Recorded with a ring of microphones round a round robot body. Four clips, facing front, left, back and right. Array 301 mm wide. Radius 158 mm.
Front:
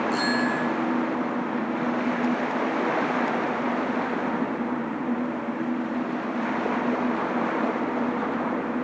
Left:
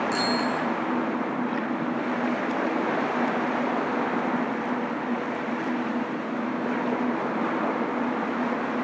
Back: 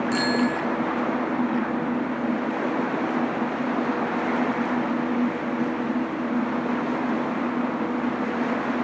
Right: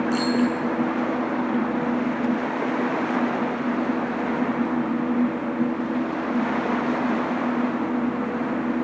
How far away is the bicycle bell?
About 6.5 m.